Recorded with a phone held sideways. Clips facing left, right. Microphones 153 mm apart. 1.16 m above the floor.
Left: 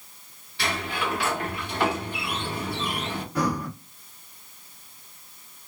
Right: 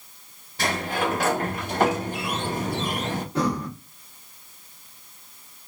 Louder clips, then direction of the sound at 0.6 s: Right 4 dB; 45° right (ahead or behind).